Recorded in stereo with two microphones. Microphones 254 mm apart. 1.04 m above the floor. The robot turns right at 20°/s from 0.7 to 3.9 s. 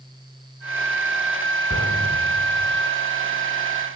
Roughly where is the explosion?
Left.